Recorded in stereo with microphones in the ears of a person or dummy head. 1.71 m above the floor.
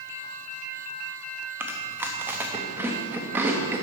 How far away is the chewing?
About 0.7 m.